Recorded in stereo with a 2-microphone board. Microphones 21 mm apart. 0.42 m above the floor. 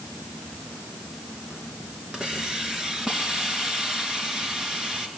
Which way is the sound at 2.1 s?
40° right (ahead or behind).